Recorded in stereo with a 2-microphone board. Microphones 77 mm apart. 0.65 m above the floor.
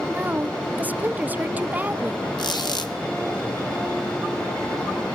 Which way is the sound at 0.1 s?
20° right (ahead or behind).